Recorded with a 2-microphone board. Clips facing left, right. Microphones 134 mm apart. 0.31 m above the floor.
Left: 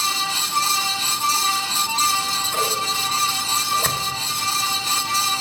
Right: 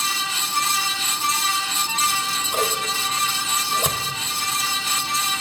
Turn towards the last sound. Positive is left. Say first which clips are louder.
# even
turn(degrees=-15)  # may be behind; listen again after turning